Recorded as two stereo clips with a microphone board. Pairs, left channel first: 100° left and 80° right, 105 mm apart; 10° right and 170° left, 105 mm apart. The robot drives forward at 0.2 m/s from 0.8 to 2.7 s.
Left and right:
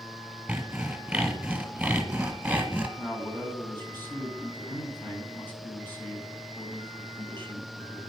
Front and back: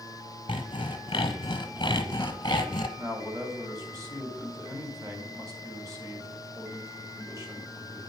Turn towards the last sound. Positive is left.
turn(degrees=155)